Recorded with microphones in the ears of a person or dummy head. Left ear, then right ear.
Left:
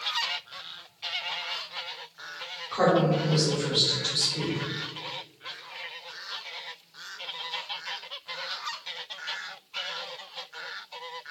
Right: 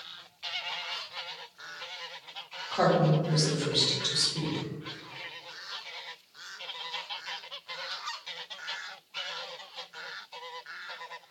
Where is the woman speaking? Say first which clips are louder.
Left 2 dB; 10° right (ahead or behind), 1.3 m.